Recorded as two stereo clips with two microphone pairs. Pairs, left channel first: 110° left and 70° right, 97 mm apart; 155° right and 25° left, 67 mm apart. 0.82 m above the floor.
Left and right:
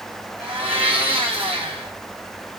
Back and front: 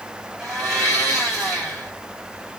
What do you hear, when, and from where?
0.4 s a blender: 50° right, 3.5 m